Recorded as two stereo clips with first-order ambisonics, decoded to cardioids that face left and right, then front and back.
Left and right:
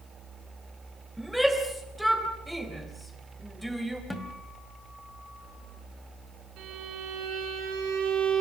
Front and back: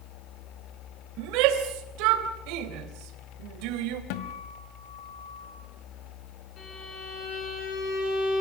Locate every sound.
1.2 s a shout: 175° right, 3.5 m
4.1 s a guitar: 5° left, 2.0 m
6.6 s a violin: 55° right, 7.5 m